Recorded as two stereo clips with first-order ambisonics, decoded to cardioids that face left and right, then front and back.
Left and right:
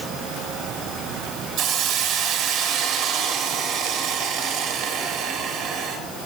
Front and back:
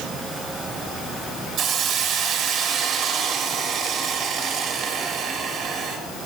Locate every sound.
1.6 s a hiss: 125° right, 1.7 m